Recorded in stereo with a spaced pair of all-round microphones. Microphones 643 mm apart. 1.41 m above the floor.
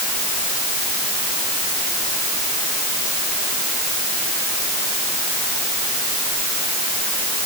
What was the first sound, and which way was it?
Only background noise.